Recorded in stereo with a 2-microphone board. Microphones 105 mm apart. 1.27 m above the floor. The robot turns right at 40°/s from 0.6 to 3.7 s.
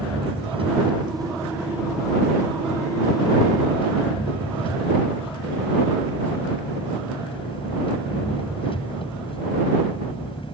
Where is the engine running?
65° right; by 10.5 s 60° left.